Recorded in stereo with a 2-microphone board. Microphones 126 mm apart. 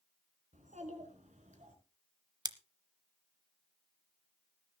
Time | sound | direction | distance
0.5 | a child speaking | 80° right | 4.5 m
2.5 | scissors | 30° right (ahead or behind) | 0.9 m